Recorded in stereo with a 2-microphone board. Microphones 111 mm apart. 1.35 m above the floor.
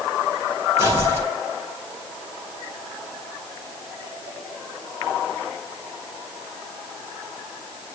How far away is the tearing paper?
About 6.5 m.